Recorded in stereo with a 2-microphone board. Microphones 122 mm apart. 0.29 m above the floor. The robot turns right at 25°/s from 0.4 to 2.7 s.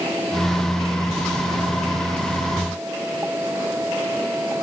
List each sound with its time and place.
Only background noise.